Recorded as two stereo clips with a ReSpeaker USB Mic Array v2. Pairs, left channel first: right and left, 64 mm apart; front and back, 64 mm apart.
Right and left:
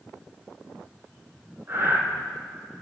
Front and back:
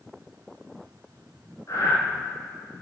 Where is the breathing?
40° left, 2.0 m.